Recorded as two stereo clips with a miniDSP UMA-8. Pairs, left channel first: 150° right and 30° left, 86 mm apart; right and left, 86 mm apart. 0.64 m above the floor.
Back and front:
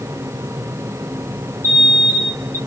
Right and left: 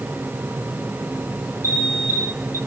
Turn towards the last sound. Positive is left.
turn(degrees=-30)